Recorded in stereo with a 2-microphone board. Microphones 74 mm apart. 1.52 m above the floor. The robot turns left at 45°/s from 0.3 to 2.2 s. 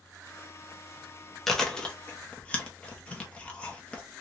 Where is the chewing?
5° left (ahead or behind), 0.9 m; by 4.0 s 20° left (ahead or behind), 0.9 m.